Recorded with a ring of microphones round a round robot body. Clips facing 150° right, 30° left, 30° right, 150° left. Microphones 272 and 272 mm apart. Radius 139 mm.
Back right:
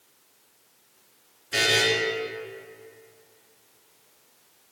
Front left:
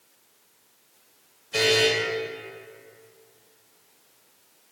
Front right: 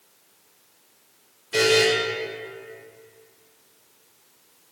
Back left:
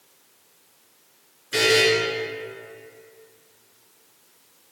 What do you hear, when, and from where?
1.5 s a buzzer: 160° right, 3 m